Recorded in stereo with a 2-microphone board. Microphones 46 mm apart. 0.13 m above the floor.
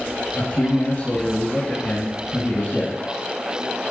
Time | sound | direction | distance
0.4 | a man speaking | 55° left (ahead or behind) | 3 m